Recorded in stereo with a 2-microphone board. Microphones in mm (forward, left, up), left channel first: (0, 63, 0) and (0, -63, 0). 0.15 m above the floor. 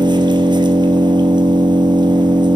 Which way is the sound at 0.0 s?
35° right (ahead or behind).